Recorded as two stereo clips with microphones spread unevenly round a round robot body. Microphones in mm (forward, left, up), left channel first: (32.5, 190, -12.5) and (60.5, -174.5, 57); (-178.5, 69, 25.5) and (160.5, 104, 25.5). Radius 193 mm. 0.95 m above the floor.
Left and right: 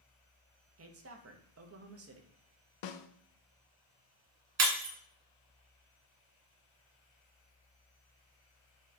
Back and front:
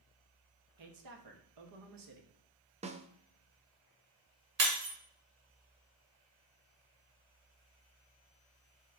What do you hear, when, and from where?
0.8 s a woman speaking: 25° right, 1.3 m
2.8 s a snare drum: 80° left, 0.8 m
4.6 s breaking glass: 35° right, 2 m